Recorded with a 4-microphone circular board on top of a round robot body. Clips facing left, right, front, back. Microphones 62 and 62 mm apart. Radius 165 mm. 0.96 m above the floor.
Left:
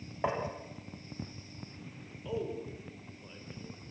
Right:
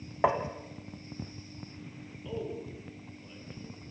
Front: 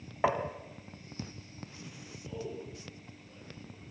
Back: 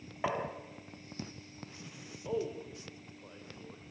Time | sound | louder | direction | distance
0.2 | tapping | right 6 dB, front 5 dB | 65° right | 1.3 m
2.2 | a man speaking | left 1 dB, back 5 dB | 165° left | 5 m